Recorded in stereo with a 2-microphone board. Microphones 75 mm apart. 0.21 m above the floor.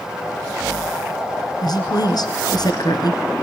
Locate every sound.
1.6 s a woman speaking: 65° left (ahead or behind), 2.5 m